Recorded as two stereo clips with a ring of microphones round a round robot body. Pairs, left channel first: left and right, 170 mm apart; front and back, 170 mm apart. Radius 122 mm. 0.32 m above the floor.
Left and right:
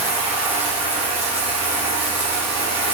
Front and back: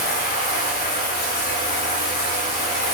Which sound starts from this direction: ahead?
Running water, at 0.0 s.